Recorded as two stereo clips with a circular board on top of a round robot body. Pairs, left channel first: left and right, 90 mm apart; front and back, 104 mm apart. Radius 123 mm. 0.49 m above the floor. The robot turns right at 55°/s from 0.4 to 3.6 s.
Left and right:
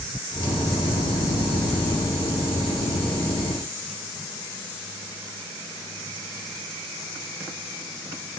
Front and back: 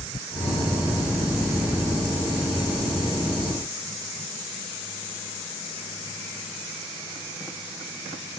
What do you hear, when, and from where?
Only background noise.